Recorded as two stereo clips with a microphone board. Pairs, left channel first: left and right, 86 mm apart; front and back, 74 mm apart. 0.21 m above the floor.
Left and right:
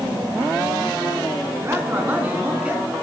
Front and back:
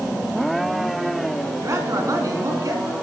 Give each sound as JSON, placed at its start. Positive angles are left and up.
{"t": 1.6, "sound": "a man speaking", "azimuth_deg": -140, "distance_m": 3.0}